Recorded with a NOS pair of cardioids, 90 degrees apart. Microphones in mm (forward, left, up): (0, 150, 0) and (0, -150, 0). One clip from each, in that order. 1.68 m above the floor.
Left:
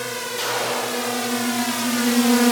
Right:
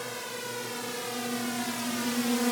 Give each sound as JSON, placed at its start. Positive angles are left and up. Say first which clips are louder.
{"t": 0.0, "sound": "a drone", "louder": "left 10 dB", "azimuth_deg": 60}